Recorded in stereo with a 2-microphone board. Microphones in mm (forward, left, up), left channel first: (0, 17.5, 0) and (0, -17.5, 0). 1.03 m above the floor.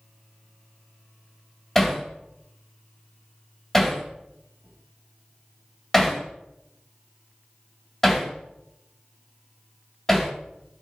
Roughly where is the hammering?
Centre.